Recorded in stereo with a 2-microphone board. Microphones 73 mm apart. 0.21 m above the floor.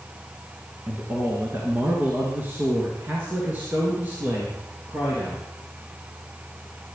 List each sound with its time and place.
0.9 s a man speaking: 30° right (ahead or behind), 2.5 m; by 5.4 s 20° right (ahead or behind), 4.5 m